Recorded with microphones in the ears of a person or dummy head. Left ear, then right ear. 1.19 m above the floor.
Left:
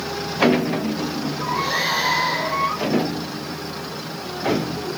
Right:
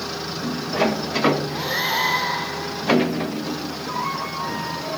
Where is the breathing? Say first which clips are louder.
Left 2 dB; 30° right (ahead or behind), 8.5 m.